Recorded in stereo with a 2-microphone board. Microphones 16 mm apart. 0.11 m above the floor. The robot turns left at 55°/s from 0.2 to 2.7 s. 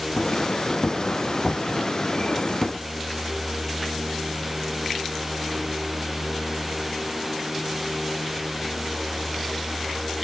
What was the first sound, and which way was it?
Only background noise.